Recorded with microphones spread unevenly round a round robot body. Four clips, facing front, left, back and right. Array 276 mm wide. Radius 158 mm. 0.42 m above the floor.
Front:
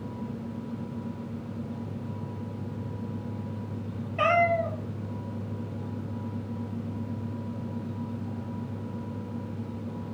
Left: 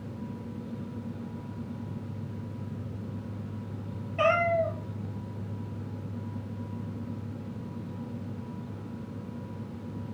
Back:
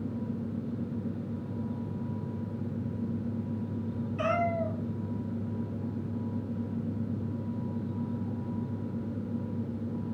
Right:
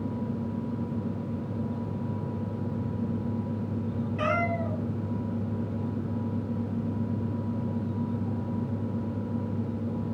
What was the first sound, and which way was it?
A cat meowing, 20° left.